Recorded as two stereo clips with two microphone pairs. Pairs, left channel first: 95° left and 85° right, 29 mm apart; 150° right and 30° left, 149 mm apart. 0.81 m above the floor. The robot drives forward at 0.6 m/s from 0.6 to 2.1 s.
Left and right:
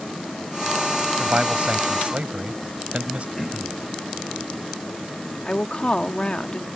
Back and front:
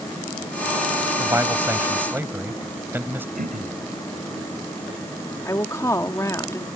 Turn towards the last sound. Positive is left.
turn(degrees=145)